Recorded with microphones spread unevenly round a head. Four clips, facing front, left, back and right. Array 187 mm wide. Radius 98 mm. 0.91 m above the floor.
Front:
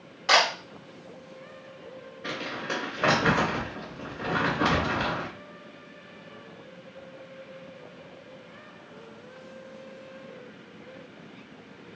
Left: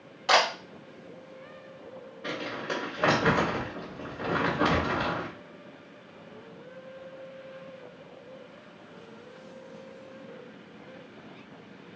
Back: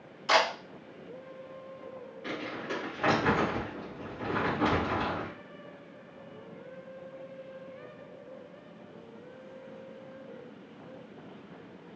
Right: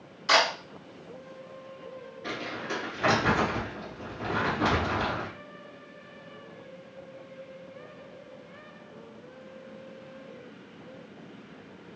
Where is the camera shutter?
40° left, 3 m.